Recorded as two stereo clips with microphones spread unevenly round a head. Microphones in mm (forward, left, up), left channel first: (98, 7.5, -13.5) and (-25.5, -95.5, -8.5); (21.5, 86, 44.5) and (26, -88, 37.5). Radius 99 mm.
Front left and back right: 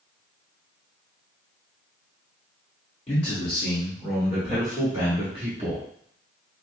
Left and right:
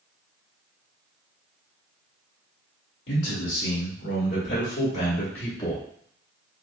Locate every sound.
3.1 s a man speaking: 120° left, 2 m; by 5.8 s 165° left, 1.2 m